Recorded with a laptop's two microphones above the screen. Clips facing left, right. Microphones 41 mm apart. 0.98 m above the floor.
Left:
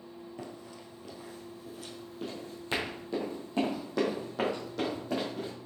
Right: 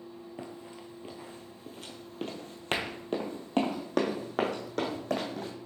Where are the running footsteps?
20° right (ahead or behind), 1.2 m; by 5.5 s 65° right (ahead or behind), 3 m.